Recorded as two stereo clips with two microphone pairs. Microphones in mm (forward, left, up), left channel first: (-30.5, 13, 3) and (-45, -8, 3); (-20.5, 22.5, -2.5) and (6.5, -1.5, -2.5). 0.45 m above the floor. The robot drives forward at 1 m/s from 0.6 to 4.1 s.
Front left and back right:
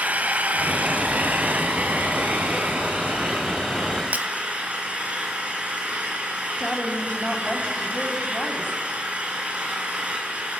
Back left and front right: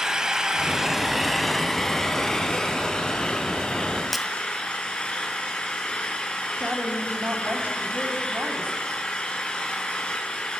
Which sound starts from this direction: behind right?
Breaking glass, at 4.1 s.